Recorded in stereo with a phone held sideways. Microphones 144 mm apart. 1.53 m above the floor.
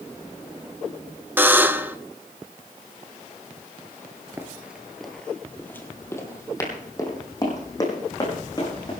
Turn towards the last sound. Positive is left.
turn(degrees=30)  # may be behind; listen again after turning